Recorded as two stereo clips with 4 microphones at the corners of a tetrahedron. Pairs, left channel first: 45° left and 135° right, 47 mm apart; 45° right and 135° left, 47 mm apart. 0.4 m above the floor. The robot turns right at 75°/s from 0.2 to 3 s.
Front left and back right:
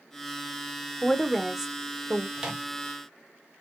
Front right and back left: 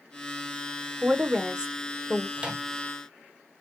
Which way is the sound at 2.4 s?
155° left.